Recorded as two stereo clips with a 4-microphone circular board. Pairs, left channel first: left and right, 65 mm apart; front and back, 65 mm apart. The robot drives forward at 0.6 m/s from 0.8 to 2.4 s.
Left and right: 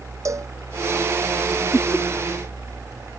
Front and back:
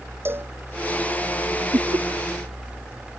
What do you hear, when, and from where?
0.2 s a cowbell: 125° right
1.7 s laughter: 165° left